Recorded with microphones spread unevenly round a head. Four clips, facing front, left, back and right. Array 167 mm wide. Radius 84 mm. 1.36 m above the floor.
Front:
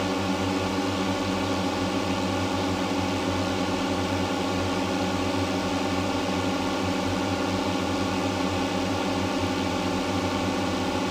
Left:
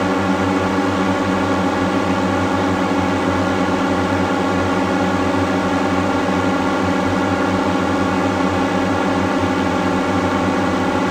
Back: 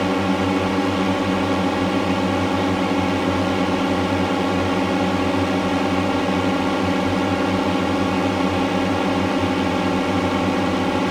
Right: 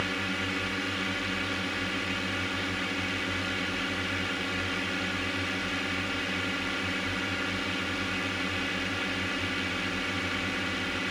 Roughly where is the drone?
Behind left.